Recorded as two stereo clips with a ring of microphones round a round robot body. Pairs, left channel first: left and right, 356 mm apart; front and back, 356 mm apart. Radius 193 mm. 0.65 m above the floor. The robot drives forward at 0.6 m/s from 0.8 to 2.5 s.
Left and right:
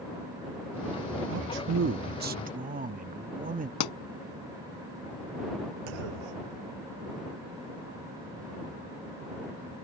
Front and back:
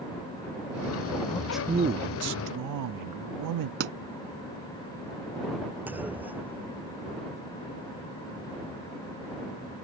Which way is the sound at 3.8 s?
115° left.